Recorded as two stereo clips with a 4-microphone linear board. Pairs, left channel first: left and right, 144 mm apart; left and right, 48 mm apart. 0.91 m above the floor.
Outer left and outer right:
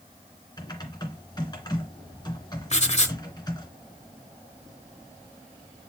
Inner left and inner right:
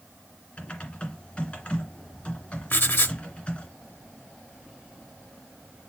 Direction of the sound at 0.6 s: 30° left (ahead or behind).